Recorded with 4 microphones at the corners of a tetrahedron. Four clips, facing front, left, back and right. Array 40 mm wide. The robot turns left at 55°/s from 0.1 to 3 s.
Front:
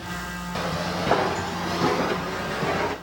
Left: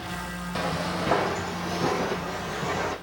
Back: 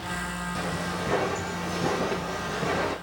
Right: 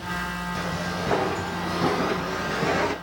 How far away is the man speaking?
I don't hear a man speaking.